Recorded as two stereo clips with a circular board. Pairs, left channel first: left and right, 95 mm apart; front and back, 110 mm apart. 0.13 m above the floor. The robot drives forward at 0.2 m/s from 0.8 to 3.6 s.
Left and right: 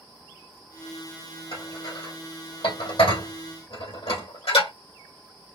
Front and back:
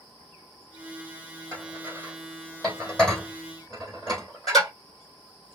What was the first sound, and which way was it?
Dishes clattering, 75° left.